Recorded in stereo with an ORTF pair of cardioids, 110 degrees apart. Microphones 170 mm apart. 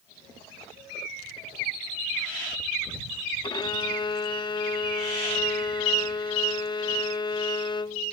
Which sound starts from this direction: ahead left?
A violin, at 3.4 s.